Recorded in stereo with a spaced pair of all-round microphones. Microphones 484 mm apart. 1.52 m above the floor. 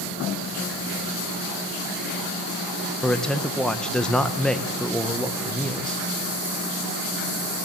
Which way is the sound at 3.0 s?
Centre (ahead or behind).